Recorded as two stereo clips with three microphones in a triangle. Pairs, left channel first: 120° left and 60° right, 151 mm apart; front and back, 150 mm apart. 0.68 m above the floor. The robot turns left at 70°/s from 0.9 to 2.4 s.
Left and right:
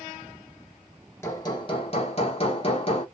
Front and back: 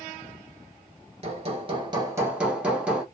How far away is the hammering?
About 1.0 m.